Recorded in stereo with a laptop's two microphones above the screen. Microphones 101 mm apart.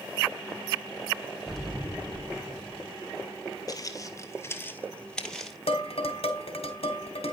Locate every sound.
1.5 s an explosion: centre (ahead or behind), 1.3 m
3.7 s footsteps: 40° left (ahead or behind), 1.2 m; by 5.6 s centre (ahead or behind), 1.3 m
5.7 s dishes clattering: 85° left, 2 m